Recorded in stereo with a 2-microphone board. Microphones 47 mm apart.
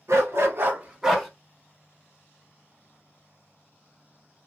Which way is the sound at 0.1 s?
80° right.